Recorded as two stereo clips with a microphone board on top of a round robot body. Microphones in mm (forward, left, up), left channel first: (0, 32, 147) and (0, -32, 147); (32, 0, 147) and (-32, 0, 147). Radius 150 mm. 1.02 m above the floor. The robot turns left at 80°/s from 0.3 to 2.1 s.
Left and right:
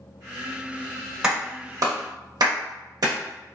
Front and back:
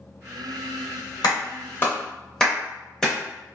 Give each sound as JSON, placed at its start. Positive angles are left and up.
{"t": 1.2, "sound": "a clap", "azimuth_deg": -10, "distance_m": 0.9}